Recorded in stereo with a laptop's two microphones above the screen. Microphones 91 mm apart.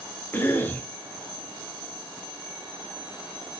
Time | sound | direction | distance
0.3 | a cough | 20° left (ahead or behind) | 0.7 m